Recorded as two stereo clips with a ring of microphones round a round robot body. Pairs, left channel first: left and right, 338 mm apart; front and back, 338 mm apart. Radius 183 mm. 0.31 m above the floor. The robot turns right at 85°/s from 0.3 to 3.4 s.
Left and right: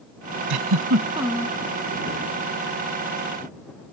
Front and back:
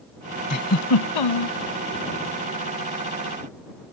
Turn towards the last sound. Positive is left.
turn(degrees=175)